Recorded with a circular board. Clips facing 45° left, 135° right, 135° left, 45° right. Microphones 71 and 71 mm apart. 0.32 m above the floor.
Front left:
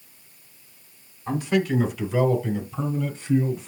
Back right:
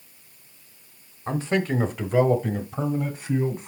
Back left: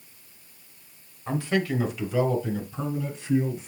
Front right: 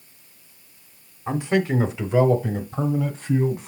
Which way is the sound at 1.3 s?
110° right.